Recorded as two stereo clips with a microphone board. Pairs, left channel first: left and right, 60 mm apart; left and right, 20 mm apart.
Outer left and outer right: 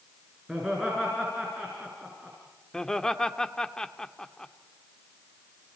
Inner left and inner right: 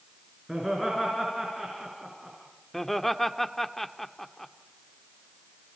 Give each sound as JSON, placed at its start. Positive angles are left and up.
{"t": 0.5, "sound": "laughter", "side_deg": -5, "distance_m": 5.5}
{"t": 2.7, "sound": "laughter", "side_deg": 10, "distance_m": 1.3}